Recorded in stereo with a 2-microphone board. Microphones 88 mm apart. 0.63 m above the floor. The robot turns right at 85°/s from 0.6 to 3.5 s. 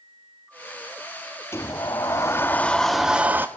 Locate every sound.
1.5 s a sliding door: 60° left, 1.2 m; by 3.5 s 135° right, 1.2 m